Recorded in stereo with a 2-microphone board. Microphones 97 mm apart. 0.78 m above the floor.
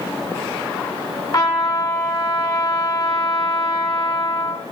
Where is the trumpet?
35° left (ahead or behind), 1.7 m.